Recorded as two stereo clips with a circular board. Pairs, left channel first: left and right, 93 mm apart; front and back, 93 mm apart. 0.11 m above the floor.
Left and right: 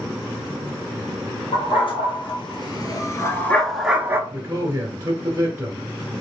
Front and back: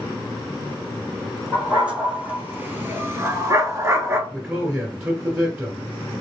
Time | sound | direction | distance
1.5 | a dog barking | 105° left | 1.5 m
4.3 | a man speaking | 120° right | 1.6 m